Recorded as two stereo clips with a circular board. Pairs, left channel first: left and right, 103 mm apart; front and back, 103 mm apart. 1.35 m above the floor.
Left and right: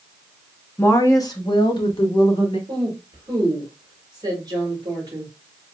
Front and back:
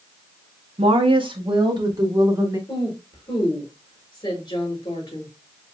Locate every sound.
0.8 s a woman speaking: 160° left, 0.9 m; by 2.6 s 125° left, 2 m
2.7 s a woman speaking: 40° right, 3.5 m